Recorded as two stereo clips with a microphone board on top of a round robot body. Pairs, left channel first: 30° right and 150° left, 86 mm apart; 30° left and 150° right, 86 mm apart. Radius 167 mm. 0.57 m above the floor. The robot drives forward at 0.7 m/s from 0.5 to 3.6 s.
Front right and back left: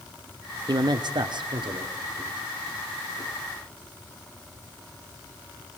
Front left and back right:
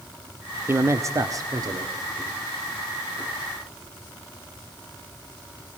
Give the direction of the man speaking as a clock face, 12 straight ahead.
7 o'clock.